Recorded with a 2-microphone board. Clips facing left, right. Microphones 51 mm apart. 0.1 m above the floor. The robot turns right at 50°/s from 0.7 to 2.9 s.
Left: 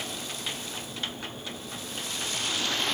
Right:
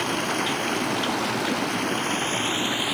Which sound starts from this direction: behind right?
Running water, at 0.0 s.